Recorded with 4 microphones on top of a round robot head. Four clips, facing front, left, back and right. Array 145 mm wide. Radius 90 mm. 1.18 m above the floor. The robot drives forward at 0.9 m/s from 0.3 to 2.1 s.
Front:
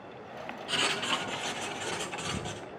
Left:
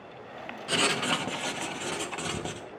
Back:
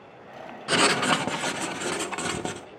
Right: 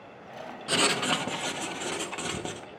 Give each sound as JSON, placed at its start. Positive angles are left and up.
{"t": 0.7, "sound": "writing", "azimuth_deg": -170, "distance_m": 0.6}